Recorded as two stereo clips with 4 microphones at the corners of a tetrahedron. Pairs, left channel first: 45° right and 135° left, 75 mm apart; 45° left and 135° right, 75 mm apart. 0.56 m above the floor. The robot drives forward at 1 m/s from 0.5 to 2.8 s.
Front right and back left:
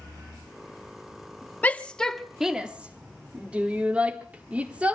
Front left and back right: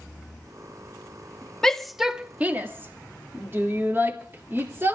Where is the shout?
25° right, 1.2 m; by 5.0 s 165° right, 1.3 m.